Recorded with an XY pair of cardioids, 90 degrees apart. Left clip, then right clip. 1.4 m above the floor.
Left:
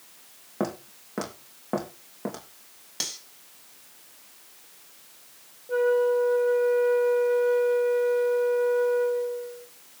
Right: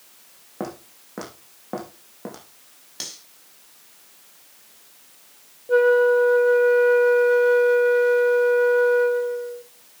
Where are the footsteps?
20° left, 4.5 m.